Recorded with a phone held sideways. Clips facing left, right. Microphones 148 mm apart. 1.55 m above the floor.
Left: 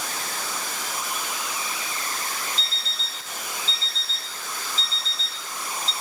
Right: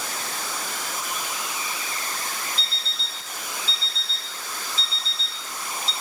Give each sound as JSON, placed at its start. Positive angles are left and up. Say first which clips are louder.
{"t": 2.6, "sound": "an alarm clock", "louder": "even", "side_deg": 40, "distance_m": 4.0}